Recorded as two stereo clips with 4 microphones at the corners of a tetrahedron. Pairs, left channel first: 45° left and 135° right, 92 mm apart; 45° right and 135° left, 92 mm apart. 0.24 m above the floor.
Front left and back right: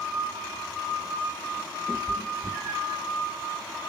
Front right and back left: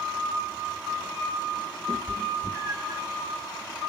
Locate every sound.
1.9 s a cat meowing: 120° left, 0.6 m; by 3.0 s 175° right, 1.0 m